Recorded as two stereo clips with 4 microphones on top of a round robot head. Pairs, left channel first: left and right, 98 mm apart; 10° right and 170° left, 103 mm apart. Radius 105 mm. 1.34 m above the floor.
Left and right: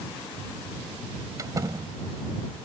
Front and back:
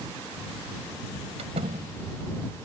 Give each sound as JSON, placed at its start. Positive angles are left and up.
{"t": 1.4, "sound": "a door slam", "azimuth_deg": -150}